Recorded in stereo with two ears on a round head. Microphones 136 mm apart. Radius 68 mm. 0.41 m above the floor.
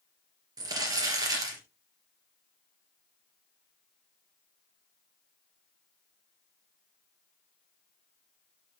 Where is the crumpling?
25° right (ahead or behind), 3 m.